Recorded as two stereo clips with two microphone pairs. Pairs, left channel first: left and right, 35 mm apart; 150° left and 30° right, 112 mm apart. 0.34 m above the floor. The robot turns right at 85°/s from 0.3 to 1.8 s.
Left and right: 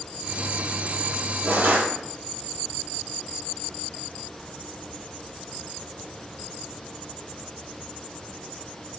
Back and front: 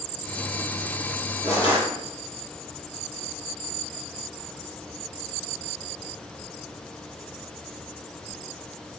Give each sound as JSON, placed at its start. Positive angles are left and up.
{"t": 1.4, "sound": "crushing", "azimuth_deg": -100, "distance_m": 6.0}